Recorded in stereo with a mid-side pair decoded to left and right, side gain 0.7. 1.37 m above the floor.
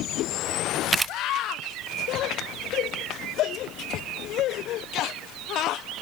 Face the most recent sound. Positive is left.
turn(degrees=-15)